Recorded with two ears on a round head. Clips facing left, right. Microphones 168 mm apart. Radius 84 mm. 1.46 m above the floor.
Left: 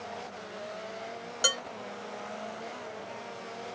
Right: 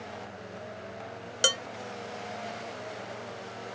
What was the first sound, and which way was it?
Dishes clattering, 30° right (ahead or behind).